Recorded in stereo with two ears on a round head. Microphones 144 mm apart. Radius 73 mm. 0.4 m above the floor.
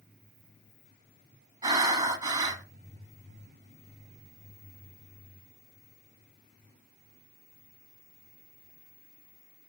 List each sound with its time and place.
1.6 s breathing: 30° right (ahead or behind), 1.3 m